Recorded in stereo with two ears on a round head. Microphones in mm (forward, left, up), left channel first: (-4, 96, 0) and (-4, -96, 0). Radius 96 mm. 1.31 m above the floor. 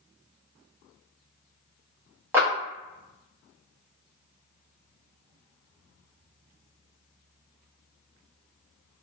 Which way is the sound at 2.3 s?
10° right (ahead or behind).